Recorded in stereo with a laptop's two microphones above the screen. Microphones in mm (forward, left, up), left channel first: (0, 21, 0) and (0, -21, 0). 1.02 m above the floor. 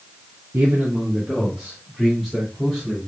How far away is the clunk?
No clunk in this recording.